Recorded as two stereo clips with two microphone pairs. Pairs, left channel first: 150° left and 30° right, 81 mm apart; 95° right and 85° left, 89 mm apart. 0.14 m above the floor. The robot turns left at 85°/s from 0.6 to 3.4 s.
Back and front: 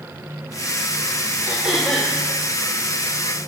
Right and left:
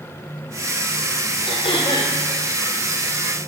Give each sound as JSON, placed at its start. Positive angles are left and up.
{"t": 1.5, "sound": "throat clearing", "azimuth_deg": -90, "distance_m": 1.5}